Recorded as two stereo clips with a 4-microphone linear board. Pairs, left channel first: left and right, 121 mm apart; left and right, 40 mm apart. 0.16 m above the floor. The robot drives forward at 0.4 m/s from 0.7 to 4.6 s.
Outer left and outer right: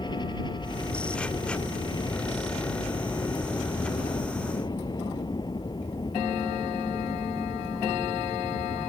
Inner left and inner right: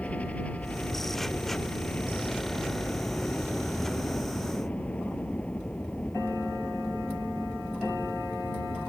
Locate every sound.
0.0 s a helicopter: 40° left (ahead or behind); by 8.9 s 35° left (ahead or behind)